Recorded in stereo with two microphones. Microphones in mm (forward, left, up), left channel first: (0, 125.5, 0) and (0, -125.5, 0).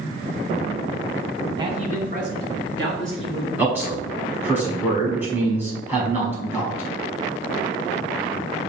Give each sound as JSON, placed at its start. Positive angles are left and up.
{"t": 1.6, "sound": "a man speaking", "side_deg": -20, "distance_m": 1.0}
{"t": 3.6, "sound": "a man speaking", "side_deg": -5, "distance_m": 1.3}